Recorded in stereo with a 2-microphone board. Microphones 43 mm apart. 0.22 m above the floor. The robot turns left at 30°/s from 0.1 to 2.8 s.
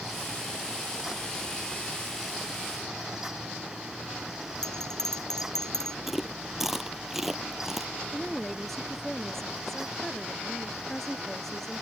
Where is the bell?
10° left (ahead or behind).